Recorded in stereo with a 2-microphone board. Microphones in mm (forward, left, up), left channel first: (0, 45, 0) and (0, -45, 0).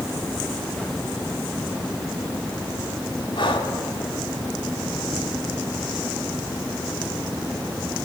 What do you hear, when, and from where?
3.4 s breathing: 65° left (ahead or behind), 2.5 m